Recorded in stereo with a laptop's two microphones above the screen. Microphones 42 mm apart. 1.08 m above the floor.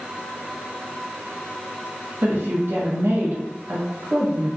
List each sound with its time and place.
2.2 s a woman speaking: 70° right (ahead or behind), 0.9 m